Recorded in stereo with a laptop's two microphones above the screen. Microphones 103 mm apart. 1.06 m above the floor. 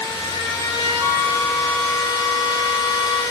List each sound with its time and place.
0.0 s a machine running: 40° left (ahead or behind), 3.5 m
1.0 s a flute: 35° left (ahead or behind), 1.8 m